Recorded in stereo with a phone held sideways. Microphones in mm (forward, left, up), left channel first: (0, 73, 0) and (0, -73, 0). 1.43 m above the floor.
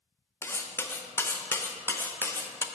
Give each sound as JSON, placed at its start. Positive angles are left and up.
{"t": 0.4, "sound": "cutlery clinking", "side_deg": 20, "distance_m": 0.5}